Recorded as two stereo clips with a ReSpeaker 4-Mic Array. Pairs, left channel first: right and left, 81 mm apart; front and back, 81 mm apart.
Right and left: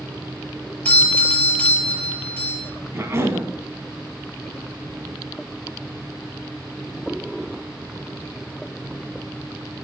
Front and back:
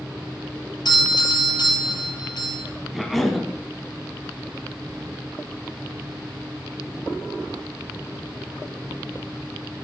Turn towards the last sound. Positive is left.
turn(degrees=90)